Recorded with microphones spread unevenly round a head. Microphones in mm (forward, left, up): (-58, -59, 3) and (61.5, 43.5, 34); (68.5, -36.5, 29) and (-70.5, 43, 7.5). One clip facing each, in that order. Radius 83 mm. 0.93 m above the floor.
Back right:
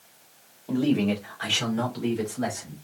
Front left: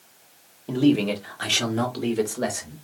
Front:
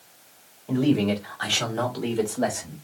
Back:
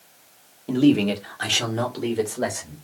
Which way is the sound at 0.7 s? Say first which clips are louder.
Front left 3 dB, back 4 dB; 105° left.